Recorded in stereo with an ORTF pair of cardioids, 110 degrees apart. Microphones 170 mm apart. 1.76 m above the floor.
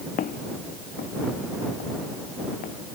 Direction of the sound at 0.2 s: 55° left.